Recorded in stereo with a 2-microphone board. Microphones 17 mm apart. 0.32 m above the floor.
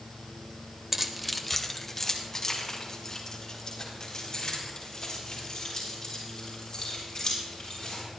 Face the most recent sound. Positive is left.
turn(degrees=40)  # may be behind; listen again after turning